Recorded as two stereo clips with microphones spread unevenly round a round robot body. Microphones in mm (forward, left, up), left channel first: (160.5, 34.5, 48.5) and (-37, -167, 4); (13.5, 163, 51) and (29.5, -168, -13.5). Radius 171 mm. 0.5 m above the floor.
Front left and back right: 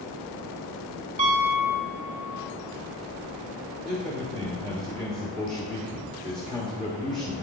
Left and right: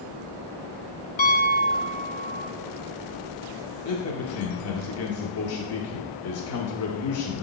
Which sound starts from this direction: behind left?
A man speaking, at 3.9 s.